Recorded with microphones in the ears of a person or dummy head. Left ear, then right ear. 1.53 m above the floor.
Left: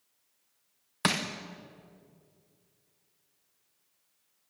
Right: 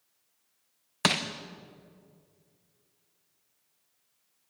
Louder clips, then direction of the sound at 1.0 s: Right 3 dB; 10° right (ahead or behind).